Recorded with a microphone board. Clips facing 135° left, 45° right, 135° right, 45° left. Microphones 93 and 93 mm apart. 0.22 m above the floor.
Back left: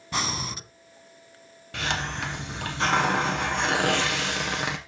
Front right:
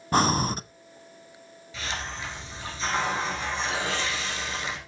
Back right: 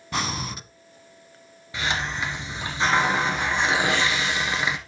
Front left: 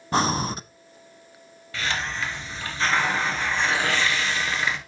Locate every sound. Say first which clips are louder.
0.1 s breathing: front right 8 dB, front left 6 dB; 5° right, 0.5 m
1.7 s a hiss: back left 5 dB, back right 1 dB; 155° left, 1.5 m